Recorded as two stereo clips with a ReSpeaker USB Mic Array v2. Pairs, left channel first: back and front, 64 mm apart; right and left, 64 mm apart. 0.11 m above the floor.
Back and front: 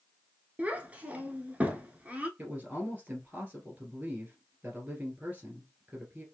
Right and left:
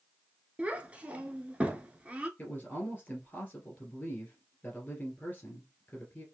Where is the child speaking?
45° left, 0.7 m.